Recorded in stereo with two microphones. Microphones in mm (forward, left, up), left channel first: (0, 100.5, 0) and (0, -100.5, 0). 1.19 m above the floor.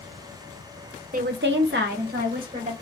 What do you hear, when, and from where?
1.1 s a woman speaking: 45° right (ahead or behind), 0.6 m; by 2.7 s 40° right (ahead or behind), 1.6 m